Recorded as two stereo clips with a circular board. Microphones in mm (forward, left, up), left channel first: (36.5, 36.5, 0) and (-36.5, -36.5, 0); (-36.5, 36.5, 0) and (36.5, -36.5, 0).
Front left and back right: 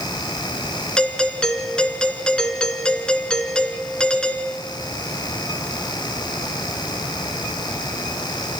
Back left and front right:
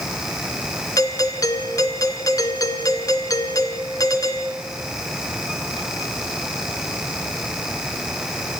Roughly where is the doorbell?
Behind left.